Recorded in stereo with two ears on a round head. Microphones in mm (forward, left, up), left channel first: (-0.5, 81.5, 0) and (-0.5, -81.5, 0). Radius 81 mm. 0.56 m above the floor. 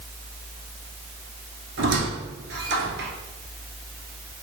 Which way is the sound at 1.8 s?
70° right (ahead or behind).